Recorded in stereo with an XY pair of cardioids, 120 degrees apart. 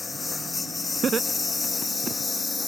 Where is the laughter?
35° right.